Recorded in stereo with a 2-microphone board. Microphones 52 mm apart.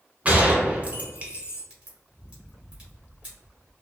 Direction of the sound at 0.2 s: 25° right (ahead or behind).